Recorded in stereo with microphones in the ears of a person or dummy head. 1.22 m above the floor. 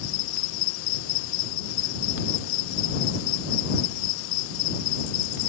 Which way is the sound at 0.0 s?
70° left (ahead or behind).